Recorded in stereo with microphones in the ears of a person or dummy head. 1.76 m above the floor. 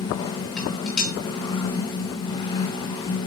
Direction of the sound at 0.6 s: 5° left (ahead or behind).